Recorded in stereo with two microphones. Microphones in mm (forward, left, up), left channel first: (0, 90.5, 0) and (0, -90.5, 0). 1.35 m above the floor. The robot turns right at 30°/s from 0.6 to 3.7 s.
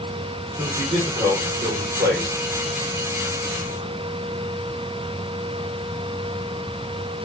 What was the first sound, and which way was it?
A man speaking, 165° right.